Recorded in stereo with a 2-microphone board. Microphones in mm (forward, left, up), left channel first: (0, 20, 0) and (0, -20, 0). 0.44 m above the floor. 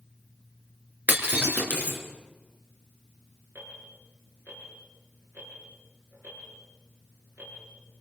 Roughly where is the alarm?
Right.